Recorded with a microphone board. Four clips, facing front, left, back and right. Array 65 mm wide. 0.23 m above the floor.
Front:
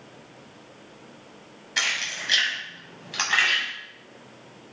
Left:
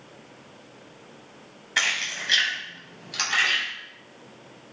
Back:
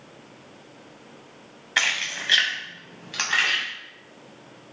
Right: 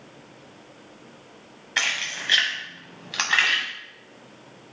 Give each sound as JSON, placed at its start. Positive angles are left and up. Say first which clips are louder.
{"t": 1.8, "sound": "keys jangling", "louder": "left 1 dB, back 3 dB", "azimuth_deg": -170, "distance_m": 1.0}